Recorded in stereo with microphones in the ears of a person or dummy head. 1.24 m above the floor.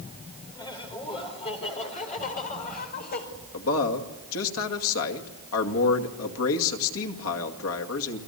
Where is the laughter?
25° left (ahead or behind), 5 m; by 3.2 s 50° left (ahead or behind), 5.5 m.